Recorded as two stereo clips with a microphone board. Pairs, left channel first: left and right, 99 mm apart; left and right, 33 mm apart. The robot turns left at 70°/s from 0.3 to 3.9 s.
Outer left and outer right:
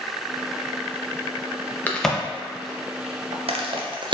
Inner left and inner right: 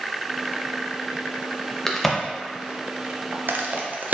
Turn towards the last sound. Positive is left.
turn(degrees=-55)  # may be behind; listen again after turning